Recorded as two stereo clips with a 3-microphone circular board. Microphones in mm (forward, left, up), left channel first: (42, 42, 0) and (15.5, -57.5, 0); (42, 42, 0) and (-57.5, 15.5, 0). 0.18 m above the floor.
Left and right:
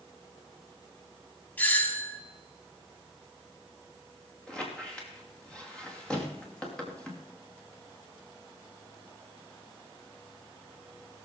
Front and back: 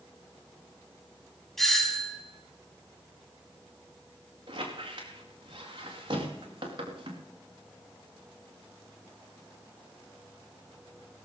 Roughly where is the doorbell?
Left.